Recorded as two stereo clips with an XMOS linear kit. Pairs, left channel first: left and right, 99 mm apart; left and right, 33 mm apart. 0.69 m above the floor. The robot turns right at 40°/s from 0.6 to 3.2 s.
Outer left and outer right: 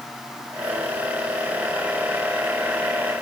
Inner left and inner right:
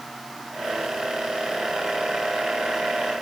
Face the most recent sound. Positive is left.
No sound to turn to.